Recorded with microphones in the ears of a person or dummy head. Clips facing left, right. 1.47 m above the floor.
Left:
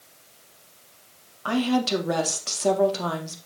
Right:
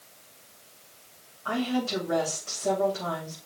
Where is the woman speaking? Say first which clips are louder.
Left 5 dB; 75° left (ahead or behind), 2.5 m.